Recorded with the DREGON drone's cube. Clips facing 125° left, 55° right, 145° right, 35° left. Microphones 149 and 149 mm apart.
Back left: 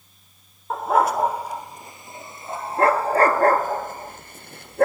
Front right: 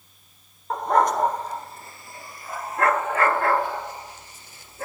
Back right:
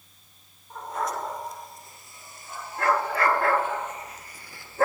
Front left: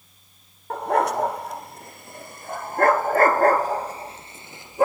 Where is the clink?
No clink in this recording.